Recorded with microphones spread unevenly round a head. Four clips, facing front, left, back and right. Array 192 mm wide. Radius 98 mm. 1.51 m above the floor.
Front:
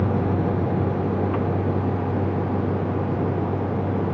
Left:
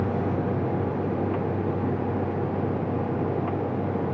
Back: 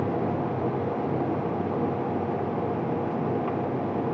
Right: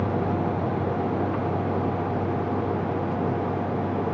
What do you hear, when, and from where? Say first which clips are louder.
0.0 s a vehicle: right 1 dB, front 3 dB; 5° right